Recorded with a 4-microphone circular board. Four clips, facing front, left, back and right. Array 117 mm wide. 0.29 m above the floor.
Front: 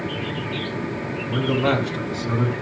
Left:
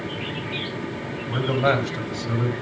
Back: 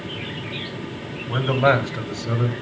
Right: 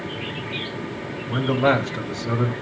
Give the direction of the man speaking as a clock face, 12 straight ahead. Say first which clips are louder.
Right 2 dB, back 3 dB; 6 o'clock.